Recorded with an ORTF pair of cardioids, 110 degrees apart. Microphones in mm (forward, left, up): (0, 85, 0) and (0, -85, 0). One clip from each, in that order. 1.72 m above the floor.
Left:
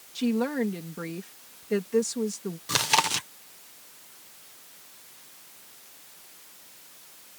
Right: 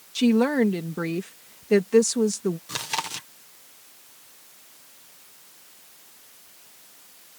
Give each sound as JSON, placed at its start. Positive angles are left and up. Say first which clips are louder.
{"t": 0.1, "sound": "a woman speaking", "louder": "right 7 dB", "azimuth_deg": -45}
{"t": 2.7, "sound": "chewing", "louder": "left 6 dB", "azimuth_deg": 30}